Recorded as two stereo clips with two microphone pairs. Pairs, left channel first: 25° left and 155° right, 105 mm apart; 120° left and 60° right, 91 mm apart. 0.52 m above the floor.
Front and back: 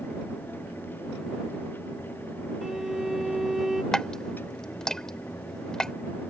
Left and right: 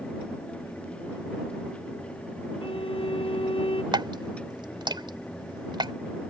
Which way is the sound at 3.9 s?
55° right.